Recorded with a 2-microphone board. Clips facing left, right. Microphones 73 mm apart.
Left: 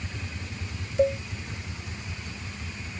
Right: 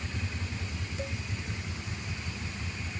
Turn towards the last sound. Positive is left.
turn(degrees=55)  # may be behind; listen again after turning